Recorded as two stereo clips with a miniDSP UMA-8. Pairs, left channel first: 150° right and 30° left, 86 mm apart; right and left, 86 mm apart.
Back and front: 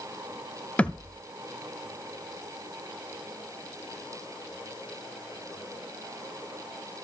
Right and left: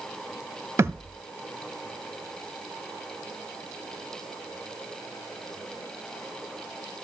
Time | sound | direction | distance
0.8 | a thud | 140° left | 0.7 m